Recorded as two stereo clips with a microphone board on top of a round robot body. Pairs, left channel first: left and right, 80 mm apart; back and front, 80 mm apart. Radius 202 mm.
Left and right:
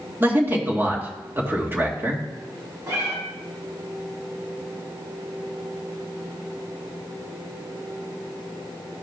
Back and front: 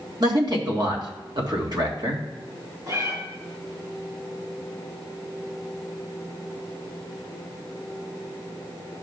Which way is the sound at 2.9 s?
40° right.